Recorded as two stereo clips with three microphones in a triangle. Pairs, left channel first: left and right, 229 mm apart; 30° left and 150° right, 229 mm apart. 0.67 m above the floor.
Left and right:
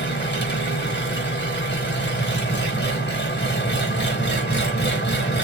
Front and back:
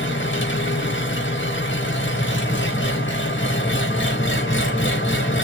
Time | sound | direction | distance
0.0 | an engine running | 55° left | 0.8 m